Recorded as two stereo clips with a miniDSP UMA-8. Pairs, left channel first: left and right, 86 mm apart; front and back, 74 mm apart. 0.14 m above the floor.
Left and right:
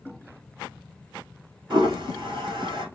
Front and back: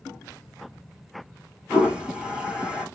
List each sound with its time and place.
1.7 s a toilet flushing: 100° right, 1.6 m